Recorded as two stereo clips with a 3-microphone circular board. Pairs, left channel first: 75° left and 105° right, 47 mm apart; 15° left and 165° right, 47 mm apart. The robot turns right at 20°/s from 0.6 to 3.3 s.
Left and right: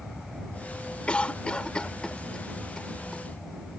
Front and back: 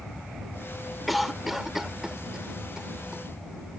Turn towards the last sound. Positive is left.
turn(degrees=150)